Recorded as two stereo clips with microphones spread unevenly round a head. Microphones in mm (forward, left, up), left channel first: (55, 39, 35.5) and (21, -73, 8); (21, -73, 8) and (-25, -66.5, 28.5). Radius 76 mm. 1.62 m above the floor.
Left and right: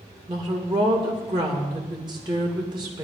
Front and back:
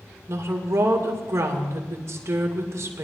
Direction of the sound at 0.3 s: 175° right.